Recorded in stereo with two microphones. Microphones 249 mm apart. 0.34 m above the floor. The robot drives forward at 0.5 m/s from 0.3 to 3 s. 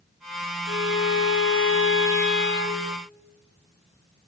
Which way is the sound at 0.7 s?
60° left (ahead or behind).